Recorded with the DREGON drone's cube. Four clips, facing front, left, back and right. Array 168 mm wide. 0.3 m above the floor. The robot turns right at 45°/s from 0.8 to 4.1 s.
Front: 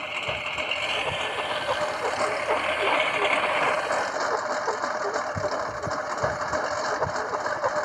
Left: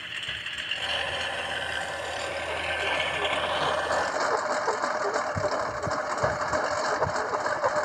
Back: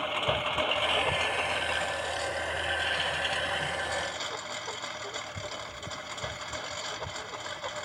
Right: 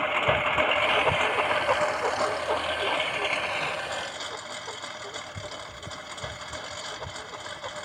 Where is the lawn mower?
105° right; by 7.8 s 45° left.